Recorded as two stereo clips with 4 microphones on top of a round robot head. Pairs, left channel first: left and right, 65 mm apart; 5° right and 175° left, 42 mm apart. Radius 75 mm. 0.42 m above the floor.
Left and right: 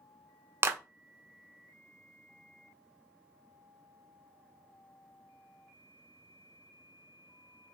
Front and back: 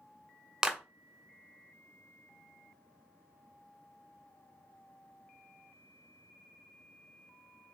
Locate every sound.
0.6 s a clap: 120° right, 0.7 m